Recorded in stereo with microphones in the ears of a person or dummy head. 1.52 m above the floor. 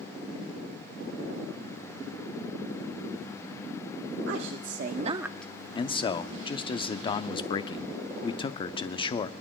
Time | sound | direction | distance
4.3 | a woman speaking | 80° right | 1.1 m
5.8 | a man speaking | 25° left (ahead or behind) | 0.5 m